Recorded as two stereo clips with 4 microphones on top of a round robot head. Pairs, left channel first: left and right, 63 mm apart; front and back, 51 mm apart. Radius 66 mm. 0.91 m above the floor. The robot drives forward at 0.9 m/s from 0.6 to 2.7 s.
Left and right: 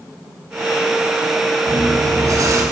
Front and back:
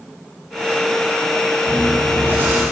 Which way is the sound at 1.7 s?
120° right.